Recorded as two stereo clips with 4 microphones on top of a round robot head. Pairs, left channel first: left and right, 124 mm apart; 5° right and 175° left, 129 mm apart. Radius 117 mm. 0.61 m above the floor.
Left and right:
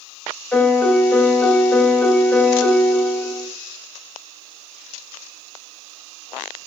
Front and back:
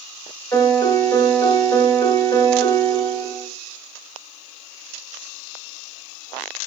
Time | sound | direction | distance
0.5 | a piano | 25° left | 1.1 m